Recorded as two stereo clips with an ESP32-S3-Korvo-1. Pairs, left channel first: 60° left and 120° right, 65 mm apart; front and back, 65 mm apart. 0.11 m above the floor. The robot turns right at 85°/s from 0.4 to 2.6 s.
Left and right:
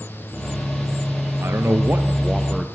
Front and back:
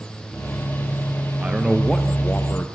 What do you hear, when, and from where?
1.4 s a man speaking: 125° right, 1.8 m; by 2.7 s 25° right, 1.8 m